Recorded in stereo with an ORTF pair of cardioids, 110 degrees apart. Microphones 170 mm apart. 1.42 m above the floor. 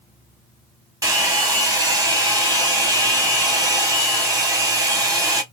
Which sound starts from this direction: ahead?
A hair dryer, at 1.0 s.